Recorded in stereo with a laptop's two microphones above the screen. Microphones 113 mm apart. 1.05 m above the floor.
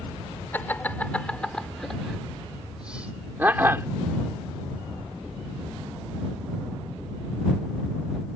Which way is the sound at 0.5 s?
20° left (ahead or behind).